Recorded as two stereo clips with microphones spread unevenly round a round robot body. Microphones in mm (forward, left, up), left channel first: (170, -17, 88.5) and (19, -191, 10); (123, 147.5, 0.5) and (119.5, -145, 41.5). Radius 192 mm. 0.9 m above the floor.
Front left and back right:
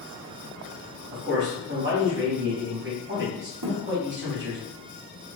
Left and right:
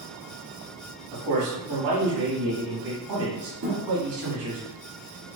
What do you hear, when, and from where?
1.1 s a man speaking: 110° right, 1.6 m
3.6 s a thud: 145° right, 0.7 m